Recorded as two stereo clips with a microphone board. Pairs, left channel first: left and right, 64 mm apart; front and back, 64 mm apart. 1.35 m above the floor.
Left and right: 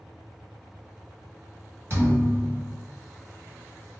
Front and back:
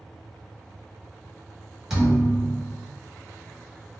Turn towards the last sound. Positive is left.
turn(degrees=-100)